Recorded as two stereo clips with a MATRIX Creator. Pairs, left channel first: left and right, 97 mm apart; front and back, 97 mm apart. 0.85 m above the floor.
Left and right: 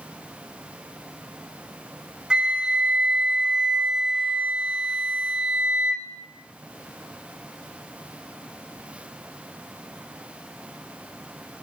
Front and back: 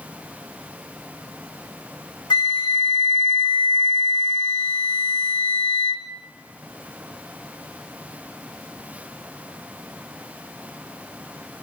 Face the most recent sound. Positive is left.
turn(degrees=-10)